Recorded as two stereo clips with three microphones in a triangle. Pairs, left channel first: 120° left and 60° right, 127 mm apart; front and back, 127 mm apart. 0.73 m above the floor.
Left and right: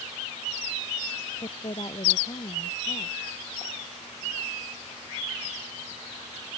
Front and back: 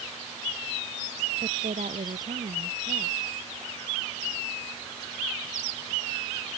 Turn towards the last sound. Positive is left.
turn(degrees=165)